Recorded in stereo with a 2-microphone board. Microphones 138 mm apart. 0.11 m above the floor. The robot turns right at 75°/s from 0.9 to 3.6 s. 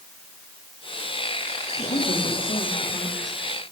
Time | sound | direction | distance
1.8 | a woman speaking | 35° left | 9 m